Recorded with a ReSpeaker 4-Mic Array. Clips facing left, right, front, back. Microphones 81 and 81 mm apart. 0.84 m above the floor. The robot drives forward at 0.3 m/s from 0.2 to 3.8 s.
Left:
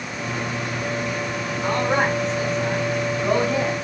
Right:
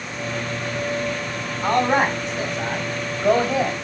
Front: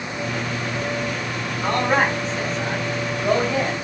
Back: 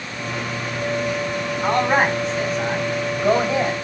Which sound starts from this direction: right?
A man speaking, at 1.6 s.